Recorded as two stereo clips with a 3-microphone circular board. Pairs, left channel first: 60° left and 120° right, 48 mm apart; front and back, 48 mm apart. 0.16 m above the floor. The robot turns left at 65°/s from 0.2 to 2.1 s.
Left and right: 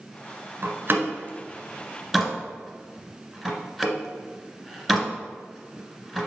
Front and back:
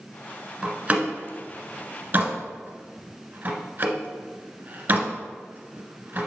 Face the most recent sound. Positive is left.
turn(degrees=160)